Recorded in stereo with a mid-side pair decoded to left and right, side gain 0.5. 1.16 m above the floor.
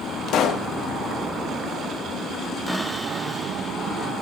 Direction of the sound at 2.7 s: Straight ahead.